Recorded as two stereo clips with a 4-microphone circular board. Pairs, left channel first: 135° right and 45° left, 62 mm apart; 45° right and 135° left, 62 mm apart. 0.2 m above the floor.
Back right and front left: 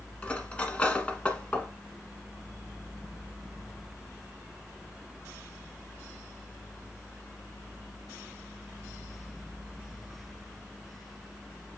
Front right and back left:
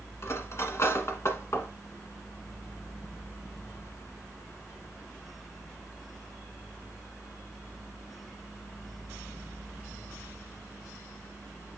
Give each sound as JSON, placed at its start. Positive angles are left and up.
{"t": 0.2, "sound": "cutlery clinking", "azimuth_deg": -70, "distance_m": 1.1}